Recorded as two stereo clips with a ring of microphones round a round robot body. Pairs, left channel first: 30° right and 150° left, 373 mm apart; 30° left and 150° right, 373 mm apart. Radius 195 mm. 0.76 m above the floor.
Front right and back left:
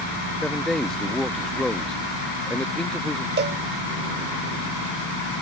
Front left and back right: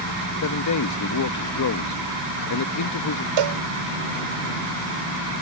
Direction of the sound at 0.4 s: 60° left.